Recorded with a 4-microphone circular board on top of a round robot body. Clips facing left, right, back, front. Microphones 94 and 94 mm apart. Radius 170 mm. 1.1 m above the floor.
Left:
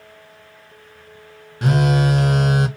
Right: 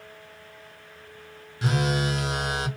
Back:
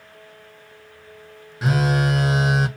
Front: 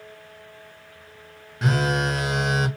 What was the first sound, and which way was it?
A phone buzzing, 95° left.